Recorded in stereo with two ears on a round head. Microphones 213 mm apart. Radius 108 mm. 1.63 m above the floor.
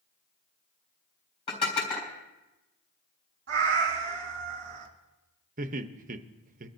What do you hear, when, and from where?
1.5 s dishes clattering: 25° left (ahead or behind), 3.5 m
3.5 s a cat meowing: 50° right (ahead or behind), 1.8 m
5.6 s laughter: 35° right (ahead or behind), 0.7 m